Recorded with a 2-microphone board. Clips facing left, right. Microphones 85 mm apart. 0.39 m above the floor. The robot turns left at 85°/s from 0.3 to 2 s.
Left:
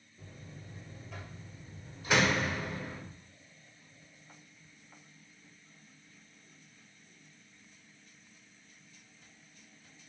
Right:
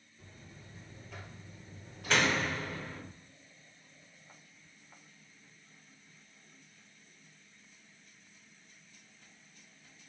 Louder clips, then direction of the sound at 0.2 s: Left 4 dB; 75° left.